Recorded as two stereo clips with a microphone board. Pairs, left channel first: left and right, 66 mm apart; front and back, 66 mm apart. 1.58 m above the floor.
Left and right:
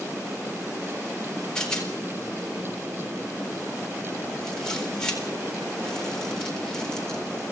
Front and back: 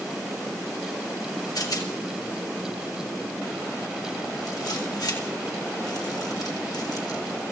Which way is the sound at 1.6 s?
10° left.